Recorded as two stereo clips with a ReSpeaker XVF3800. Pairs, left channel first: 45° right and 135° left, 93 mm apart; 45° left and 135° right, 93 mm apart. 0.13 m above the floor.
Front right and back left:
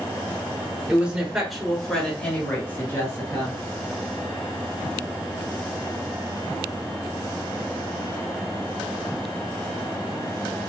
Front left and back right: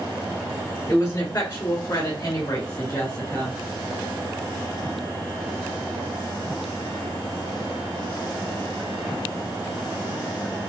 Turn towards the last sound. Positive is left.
turn(degrees=-5)